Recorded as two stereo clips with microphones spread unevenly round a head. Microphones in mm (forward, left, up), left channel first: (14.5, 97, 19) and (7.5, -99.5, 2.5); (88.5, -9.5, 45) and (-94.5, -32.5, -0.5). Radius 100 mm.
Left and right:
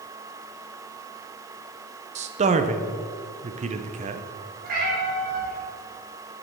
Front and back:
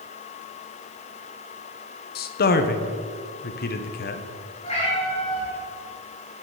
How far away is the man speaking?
About 0.7 m.